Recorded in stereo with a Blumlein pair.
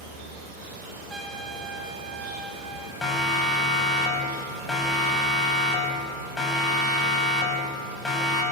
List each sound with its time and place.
0.0 s an insect: 55° right, 9.5 m
1.1 s a trumpet: 10° right, 3 m
3.0 s a siren: 10° left, 7 m